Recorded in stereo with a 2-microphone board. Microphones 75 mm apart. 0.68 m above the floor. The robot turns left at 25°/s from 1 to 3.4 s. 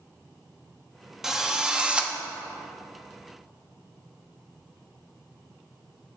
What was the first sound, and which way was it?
A drill, 5° right (ahead or behind).